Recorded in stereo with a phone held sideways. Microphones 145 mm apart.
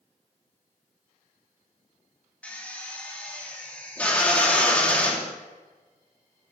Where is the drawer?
I don't hear a drawer.